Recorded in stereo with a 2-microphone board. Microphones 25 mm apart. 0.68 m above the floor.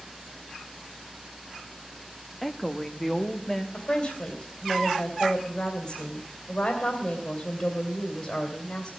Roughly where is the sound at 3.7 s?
Left.